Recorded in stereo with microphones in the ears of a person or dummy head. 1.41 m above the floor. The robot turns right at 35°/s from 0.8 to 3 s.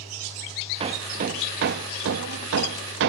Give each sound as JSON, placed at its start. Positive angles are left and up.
{"t": 0.8, "sound": "hammering", "side_deg": -30, "distance_m": 1.5}